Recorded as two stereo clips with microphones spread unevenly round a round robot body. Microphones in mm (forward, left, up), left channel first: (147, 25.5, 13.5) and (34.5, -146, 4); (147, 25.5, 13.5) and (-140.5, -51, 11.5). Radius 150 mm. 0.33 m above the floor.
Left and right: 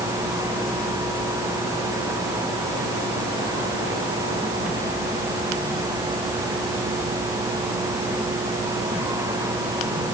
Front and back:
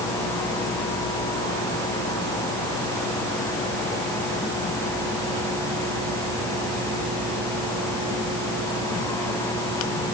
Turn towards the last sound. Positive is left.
No sound to turn to.